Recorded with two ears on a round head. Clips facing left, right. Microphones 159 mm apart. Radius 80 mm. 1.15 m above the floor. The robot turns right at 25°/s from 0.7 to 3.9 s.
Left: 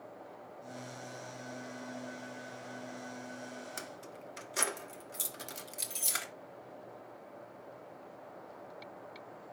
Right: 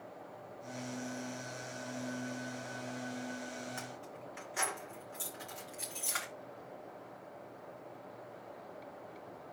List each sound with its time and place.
3.8 s keys jangling: 45° left (ahead or behind), 1.3 m
6.1 s a camera shutter: 40° left (ahead or behind), 2 m